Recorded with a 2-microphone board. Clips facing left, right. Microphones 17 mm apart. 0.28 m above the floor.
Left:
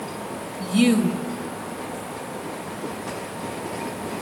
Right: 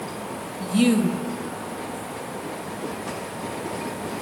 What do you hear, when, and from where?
0.6 s a woman speaking: 15° left (ahead or behind), 0.9 m